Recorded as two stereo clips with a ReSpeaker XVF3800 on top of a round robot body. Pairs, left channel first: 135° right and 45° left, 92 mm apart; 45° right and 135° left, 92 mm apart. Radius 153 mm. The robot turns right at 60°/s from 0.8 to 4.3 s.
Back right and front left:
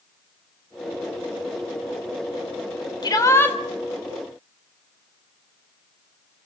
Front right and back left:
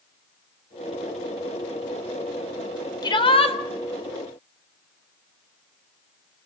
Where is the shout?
90° right, 4 m; by 3.6 s 60° right, 4 m.